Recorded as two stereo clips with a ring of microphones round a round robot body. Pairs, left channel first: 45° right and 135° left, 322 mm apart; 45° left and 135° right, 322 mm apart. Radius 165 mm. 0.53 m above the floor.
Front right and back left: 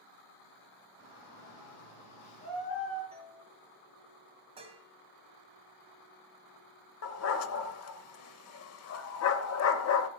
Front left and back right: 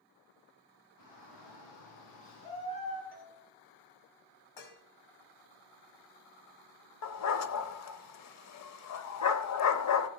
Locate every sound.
1.0 s a shout: 10° left, 5 m; by 3.0 s 20° right, 4.5 m
3.1 s a doorbell: 65° left, 3.5 m
4.6 s dishes clattering: 60° left, 2 m
7.0 s a dog barking: straight ahead, 0.9 m